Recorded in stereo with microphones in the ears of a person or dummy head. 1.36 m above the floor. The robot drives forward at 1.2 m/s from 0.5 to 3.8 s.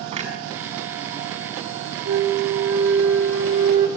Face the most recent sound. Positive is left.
turn(degrees=-70)  # may be behind; listen again after turning